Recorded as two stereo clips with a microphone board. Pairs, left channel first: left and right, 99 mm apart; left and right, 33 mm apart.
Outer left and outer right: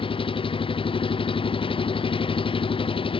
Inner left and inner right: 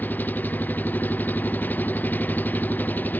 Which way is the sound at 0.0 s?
60° left (ahead or behind).